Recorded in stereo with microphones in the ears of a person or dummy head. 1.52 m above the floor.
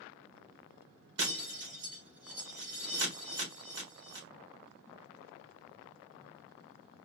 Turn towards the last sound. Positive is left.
turn(degrees=-60)  # may be behind; listen again after turning